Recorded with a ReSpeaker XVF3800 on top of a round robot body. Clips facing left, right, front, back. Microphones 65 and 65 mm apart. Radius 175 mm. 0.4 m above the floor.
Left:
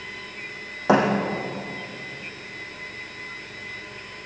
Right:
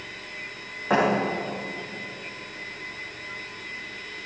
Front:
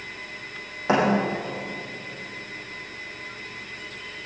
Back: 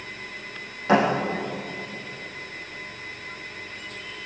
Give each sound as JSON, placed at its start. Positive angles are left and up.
{"t": 0.9, "sound": "a thud", "azimuth_deg": 75, "distance_m": 4.0}